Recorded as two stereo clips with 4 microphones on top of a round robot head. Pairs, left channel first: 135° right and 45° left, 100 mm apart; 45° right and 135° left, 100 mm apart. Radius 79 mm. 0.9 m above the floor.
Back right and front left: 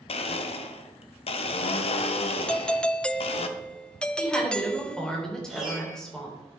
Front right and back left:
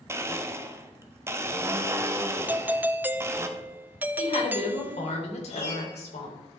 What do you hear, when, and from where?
0.1 s a blender: 160° right, 0.9 m
2.5 s a doorbell: 160° left, 0.7 m
4.2 s a woman speaking: 55° right, 3.5 m
5.5 s a piano: 40° right, 5 m